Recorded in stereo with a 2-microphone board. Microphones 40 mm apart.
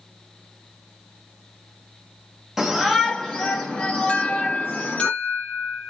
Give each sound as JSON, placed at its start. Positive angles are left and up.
{"t": 2.6, "sound": "a shout", "side_deg": -10, "distance_m": 1.1}
{"t": 4.1, "sound": "an alarm", "side_deg": 35, "distance_m": 1.0}